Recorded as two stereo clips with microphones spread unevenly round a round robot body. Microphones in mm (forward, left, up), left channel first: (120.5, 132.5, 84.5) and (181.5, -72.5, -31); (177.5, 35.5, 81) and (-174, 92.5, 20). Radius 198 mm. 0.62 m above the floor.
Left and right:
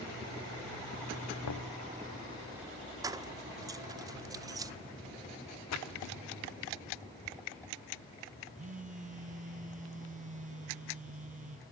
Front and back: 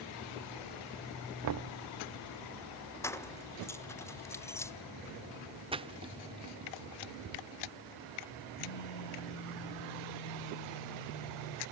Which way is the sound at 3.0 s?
100° right.